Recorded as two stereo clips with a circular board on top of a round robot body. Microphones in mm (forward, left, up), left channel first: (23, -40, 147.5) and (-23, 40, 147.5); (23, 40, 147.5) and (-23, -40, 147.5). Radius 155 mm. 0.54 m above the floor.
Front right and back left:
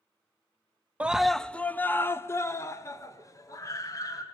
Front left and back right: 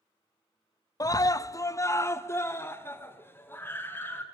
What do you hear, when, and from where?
1.0 s a scream: 55° left, 0.7 m; by 4.2 s 10° right, 3 m